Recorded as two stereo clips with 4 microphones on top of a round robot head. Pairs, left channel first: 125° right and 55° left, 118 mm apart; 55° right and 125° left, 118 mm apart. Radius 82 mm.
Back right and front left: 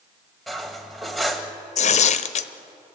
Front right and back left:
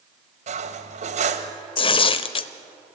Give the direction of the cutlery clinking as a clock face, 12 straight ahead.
7 o'clock.